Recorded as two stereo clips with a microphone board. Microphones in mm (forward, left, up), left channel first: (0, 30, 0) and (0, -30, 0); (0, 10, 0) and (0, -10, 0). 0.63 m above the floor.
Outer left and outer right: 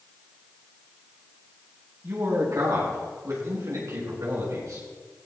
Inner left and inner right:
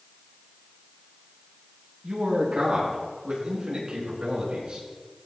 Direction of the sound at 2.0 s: 55° right (ahead or behind).